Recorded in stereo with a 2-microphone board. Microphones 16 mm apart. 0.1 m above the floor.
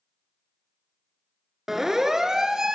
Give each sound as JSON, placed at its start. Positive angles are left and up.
{"t": 1.7, "sound": "a siren", "side_deg": -25, "distance_m": 2.5}